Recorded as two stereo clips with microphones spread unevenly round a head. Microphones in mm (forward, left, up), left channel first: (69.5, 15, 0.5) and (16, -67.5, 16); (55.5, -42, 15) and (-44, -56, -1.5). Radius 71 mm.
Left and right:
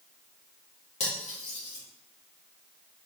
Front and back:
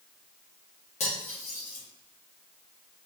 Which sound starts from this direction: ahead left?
Cutlery clinking, at 1.0 s.